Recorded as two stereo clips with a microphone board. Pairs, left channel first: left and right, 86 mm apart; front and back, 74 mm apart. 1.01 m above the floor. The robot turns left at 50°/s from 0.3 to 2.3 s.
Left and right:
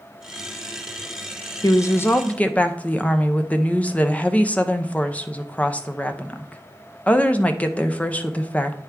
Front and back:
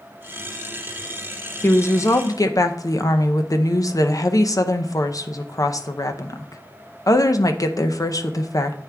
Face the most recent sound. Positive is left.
turn(degrees=20)